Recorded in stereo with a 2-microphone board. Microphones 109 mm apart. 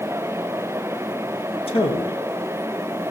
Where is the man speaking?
55° left (ahead or behind), 2 m.